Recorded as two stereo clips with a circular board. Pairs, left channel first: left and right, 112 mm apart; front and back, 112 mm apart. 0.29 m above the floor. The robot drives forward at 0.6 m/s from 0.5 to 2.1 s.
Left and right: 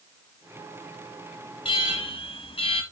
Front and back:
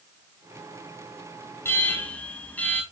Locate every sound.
1.6 s an alarm: 65° left, 1.8 m; by 2.8 s 75° left, 1.7 m